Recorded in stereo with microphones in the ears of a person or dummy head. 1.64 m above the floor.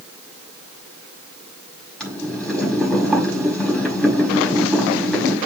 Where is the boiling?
5° left (ahead or behind), 5.5 m.